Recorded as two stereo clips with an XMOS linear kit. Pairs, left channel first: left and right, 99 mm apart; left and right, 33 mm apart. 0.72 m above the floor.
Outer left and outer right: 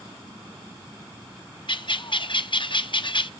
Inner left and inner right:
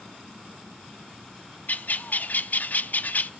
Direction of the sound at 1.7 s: 55° left (ahead or behind).